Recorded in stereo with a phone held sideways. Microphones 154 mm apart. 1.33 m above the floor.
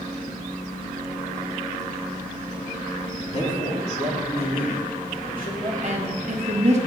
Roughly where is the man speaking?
Left.